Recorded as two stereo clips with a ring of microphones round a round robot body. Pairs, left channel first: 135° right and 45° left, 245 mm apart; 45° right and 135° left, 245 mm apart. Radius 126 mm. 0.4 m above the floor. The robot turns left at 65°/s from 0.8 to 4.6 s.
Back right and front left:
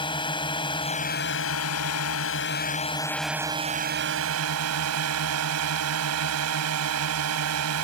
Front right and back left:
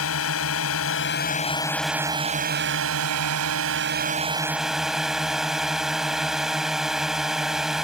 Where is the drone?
65° right; by 7.8 s 45° left.